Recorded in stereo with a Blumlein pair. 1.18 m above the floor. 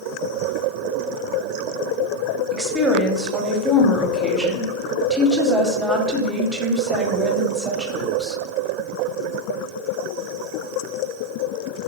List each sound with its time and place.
2.5 s a woman speaking: 5° right, 0.7 m